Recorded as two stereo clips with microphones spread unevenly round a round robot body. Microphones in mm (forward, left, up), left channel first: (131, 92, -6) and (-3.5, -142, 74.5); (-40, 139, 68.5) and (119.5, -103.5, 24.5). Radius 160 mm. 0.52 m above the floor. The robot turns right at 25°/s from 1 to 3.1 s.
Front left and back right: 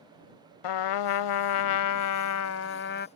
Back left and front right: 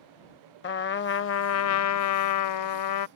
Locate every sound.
0.6 s a trumpet: 75° left; by 3.1 s 125° left